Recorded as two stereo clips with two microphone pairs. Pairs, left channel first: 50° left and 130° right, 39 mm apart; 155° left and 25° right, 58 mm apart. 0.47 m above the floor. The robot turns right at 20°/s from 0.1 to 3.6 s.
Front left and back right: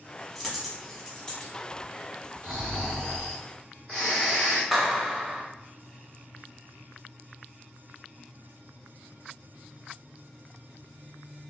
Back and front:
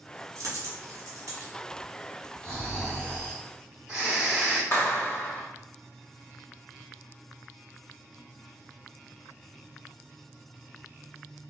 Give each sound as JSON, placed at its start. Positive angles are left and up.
{"t": 0.3, "sound": "a dropped coin", "azimuth_deg": -45, "distance_m": 0.8}
{"t": 2.4, "sound": "snoring", "azimuth_deg": -125, "distance_m": 1.5}
{"t": 4.7, "sound": "a clap", "azimuth_deg": 140, "distance_m": 0.7}